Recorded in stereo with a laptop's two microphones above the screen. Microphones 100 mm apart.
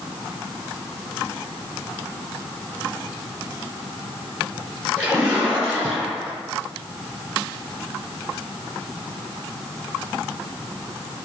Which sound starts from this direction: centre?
A splash, at 5.0 s.